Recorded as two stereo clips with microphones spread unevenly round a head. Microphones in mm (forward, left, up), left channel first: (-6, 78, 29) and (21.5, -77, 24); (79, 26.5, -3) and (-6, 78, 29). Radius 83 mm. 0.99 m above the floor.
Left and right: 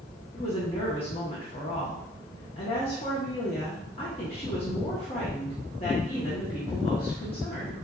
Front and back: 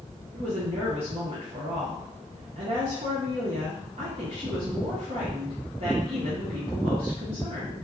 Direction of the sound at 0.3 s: 135° left.